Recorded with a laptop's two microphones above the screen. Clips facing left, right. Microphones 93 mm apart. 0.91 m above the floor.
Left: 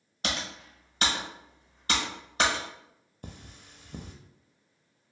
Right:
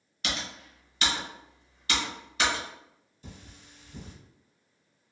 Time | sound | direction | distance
0.2 | typing on a keyboard | 35° left (ahead or behind) | 0.8 m
3.2 | cutlery clinking | 55° left (ahead or behind) | 0.5 m